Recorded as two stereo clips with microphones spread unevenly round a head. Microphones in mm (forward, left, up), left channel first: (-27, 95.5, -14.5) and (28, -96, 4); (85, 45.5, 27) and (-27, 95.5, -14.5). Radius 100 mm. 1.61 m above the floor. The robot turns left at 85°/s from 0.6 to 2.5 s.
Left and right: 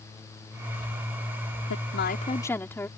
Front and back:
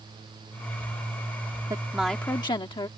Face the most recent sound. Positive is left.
turn(degrees=25)